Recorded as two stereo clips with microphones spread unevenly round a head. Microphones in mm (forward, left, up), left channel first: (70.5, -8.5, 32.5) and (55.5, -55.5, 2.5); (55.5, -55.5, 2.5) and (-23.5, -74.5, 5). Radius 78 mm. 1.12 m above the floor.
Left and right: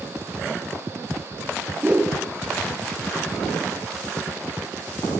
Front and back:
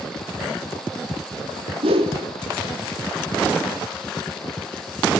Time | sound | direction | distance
1.8 | a whoosh | straight behind | 1.6 m